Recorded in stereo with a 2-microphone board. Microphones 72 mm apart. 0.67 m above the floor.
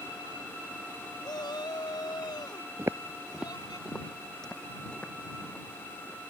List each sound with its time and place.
1.2 s a shout: 75° left (ahead or behind); by 3.8 s 65° left (ahead or behind)
2.8 s footsteps: 40° right (ahead or behind); by 6.3 s 15° left (ahead or behind)